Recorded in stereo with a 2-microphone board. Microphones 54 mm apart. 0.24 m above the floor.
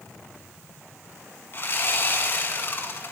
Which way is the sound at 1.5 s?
45° left (ahead or behind).